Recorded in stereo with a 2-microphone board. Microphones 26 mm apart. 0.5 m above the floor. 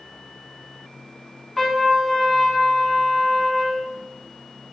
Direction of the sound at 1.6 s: 10° left (ahead or behind).